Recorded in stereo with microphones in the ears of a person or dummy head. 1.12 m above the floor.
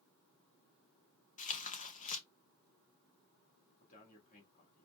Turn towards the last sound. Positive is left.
turn(degrees=40)  # may be behind; listen again after turning